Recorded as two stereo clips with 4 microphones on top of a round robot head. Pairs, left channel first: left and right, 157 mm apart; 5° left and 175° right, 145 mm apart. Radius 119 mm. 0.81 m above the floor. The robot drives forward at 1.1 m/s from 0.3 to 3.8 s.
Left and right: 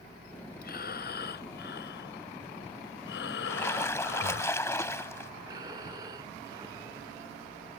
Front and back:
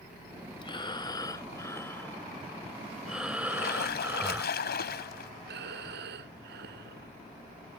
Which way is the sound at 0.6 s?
65° left.